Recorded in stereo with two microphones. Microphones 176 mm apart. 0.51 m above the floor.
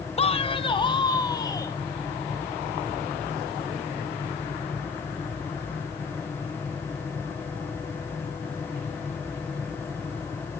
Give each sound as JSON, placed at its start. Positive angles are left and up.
{"t": 0.2, "sound": "a man speaking", "side_deg": 35, "distance_m": 0.9}